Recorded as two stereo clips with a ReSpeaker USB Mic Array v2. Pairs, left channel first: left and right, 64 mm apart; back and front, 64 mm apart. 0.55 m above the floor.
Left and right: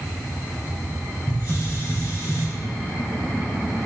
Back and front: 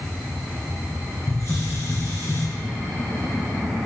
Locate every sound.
1.3 s a hiss: 125° left, 4 m